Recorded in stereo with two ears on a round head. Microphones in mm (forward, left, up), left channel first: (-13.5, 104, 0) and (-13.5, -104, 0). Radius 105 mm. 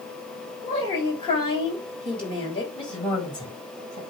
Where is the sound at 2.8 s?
20° left (ahead or behind), 5.5 m.